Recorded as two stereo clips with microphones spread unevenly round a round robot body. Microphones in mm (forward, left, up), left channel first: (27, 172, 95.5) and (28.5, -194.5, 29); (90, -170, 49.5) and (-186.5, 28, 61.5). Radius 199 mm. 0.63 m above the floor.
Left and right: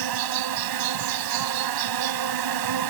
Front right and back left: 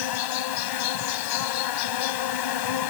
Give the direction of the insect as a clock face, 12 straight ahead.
2 o'clock.